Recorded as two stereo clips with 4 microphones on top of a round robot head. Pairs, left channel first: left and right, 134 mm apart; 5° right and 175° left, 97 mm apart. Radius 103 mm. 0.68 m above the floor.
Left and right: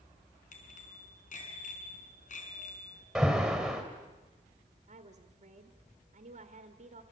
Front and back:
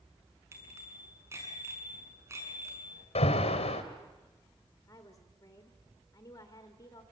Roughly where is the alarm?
Ahead.